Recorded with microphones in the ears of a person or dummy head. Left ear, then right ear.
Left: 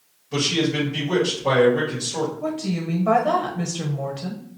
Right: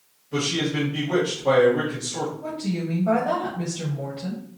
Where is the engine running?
I don't hear an engine running.